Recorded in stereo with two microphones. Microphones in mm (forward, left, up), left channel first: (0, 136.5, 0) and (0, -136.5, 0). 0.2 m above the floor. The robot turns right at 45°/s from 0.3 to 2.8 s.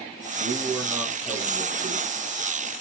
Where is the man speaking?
40° right, 7.5 m; by 2.1 s 35° left, 7.5 m.